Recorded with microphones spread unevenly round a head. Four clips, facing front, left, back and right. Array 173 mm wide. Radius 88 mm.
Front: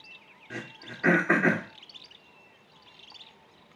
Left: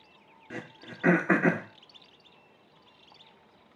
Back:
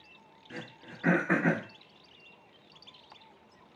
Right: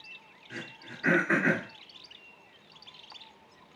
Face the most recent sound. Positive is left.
turn(degrees=60)